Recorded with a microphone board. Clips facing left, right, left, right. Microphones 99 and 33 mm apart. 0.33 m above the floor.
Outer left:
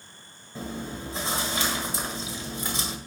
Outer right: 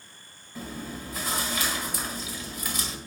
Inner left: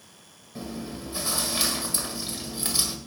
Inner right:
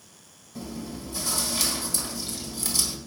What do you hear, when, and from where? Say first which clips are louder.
0.6 s chewing: outer left 2 dB, inner left 1 dB; 30° left (ahead or behind), 1.5 m